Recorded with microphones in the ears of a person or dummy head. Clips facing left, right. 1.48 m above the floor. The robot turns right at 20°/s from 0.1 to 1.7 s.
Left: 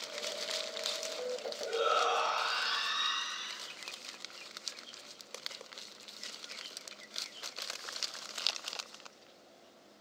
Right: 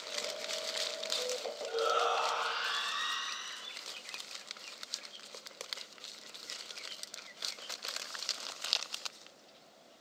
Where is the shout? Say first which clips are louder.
Even; 35° left (ahead or behind), 1.7 m.